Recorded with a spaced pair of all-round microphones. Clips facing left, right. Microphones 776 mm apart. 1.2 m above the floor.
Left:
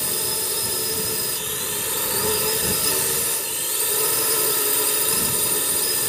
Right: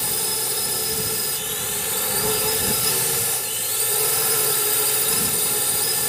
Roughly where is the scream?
No scream in this recording.